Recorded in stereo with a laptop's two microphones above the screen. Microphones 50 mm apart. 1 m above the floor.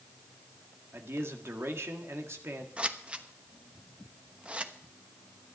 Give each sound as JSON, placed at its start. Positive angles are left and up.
{"t": 0.9, "sound": "a man speaking", "side_deg": -60, "distance_m": 1.7}
{"t": 2.8, "sound": "scissors", "side_deg": -25, "distance_m": 1.1}